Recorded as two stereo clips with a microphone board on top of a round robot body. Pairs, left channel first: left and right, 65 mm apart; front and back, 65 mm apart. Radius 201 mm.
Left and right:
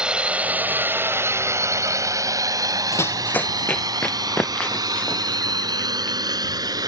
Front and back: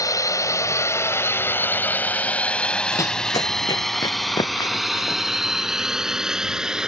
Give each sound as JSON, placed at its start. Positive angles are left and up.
{"t": 0.0, "sound": "a drone", "azimuth_deg": -15}
{"t": 2.9, "sound": "running footsteps", "azimuth_deg": 45}